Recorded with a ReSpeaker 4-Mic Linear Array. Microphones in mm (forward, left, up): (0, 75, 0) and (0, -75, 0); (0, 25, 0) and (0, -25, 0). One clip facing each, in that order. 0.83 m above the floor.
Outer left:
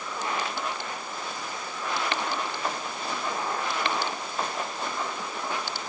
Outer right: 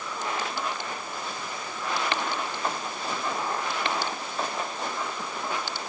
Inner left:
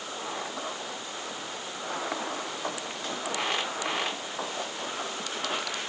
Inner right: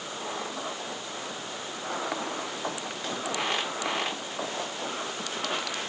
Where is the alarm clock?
No alarm clock in this recording.